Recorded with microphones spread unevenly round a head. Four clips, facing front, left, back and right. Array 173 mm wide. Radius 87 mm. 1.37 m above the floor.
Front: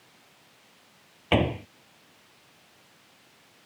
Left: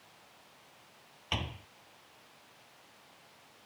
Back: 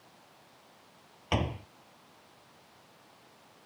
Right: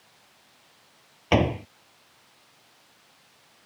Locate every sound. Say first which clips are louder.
1.3 s a door slam: right 18 dB, front 8 dB; 60° right